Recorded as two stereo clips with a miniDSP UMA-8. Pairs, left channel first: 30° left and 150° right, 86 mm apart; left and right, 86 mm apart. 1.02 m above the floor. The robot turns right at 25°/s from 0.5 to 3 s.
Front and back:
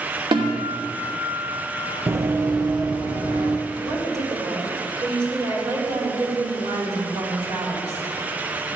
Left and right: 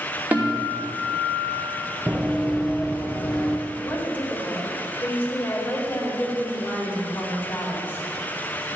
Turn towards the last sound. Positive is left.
turn(degrees=160)